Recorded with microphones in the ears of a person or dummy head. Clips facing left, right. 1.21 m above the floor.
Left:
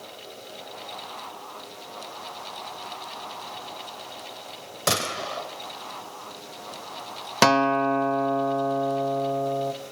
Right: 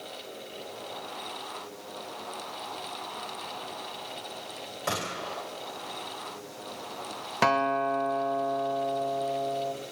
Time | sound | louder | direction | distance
4.9 | a gunshot | left 6 dB | 60° left (ahead or behind) | 3 m
7.4 | a guitar | left 5 dB | 55° left (ahead or behind) | 0.9 m